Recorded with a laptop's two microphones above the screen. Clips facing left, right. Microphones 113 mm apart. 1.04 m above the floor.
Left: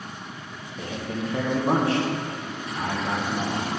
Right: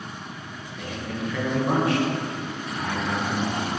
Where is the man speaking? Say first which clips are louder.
Left 1 dB; 30° left (ahead or behind), 0.6 m.